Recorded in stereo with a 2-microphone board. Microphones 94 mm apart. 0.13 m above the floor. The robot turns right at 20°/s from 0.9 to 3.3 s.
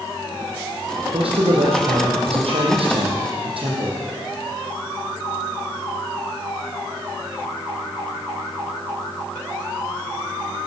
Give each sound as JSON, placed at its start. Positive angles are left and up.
{"t": 1.1, "sound": "a man speaking", "azimuth_deg": -110, "distance_m": 5.0}